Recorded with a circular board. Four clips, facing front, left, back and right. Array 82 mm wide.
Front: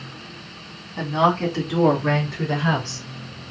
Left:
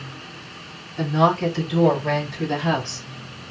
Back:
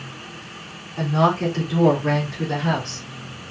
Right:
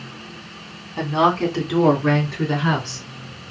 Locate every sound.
1.0 s a woman speaking: 80° right, 2.5 m; by 3.1 s 65° right, 4 m